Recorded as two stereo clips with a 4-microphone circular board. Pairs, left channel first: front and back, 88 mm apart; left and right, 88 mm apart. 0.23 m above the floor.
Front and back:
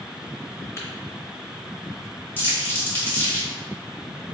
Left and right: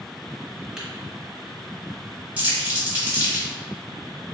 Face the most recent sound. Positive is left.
turn(degrees=-35)